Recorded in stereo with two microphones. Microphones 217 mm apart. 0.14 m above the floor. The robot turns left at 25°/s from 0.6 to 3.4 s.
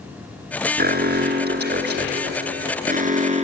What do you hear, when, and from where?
0.8 s an alarm: 70° right, 1.6 m; by 3.5 s 135° right, 1.6 m